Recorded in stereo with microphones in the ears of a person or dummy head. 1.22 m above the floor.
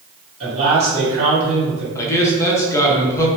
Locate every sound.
0.4 s a man speaking: 35° right (ahead or behind), 1.3 m
1.9 s a man speaking: 15° left (ahead or behind), 0.5 m